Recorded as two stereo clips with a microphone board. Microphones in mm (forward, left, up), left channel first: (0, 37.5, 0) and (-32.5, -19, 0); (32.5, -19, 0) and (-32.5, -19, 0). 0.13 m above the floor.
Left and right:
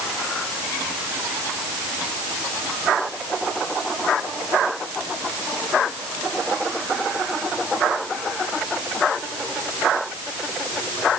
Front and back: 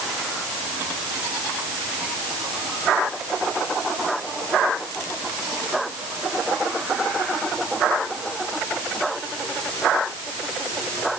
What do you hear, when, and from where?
Only background noise.